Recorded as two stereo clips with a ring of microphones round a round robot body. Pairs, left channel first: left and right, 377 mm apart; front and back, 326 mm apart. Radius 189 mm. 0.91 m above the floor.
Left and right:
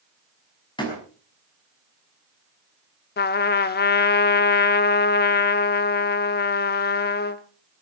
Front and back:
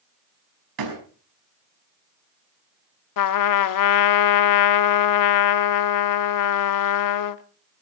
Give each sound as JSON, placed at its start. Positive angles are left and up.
{"t": 0.8, "sound": "a door slam", "azimuth_deg": 170, "distance_m": 6.0}
{"t": 3.2, "sound": "a trumpet", "azimuth_deg": 25, "distance_m": 0.9}